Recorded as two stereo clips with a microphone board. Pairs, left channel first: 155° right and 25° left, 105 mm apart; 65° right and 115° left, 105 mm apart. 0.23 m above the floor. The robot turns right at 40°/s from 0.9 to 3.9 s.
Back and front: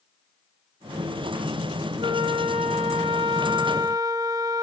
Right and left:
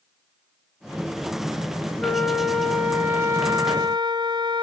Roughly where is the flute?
Ahead.